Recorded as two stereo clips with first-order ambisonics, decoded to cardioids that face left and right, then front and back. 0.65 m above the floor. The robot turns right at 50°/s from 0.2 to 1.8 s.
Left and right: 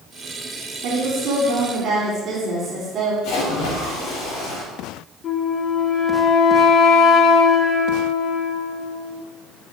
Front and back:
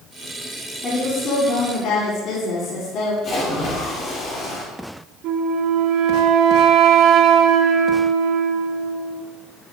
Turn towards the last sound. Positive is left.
turn(degrees=145)